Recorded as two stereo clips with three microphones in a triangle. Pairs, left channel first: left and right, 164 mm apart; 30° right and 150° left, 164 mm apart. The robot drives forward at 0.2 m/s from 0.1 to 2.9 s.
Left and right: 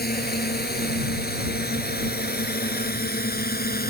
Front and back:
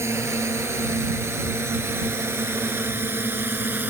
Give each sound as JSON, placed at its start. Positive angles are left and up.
{"t": 0.0, "sound": "a drone", "azimuth_deg": 75}